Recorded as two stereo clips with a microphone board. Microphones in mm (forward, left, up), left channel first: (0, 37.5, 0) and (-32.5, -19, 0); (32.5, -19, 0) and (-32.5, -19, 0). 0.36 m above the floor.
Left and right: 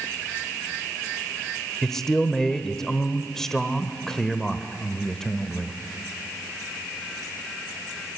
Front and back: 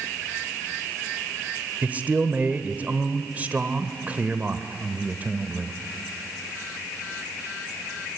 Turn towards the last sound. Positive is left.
turn(degrees=140)